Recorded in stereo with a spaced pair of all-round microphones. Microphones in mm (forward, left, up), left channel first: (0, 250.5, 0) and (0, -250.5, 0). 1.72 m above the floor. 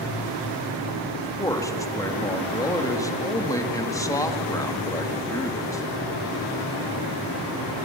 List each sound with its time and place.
1.2 s a man speaking: 5° left (ahead or behind), 2.5 m